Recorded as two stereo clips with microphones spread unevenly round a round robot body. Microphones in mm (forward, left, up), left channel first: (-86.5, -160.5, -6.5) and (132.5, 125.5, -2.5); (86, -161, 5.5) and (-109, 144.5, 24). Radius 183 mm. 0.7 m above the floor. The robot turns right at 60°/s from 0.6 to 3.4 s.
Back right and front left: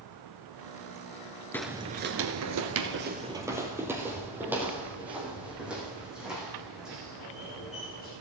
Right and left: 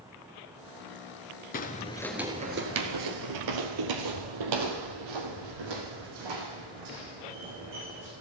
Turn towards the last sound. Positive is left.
turn(degrees=140)